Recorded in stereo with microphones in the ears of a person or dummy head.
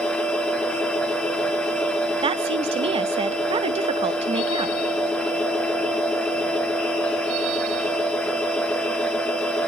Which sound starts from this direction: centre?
A machine running, at 0.0 s.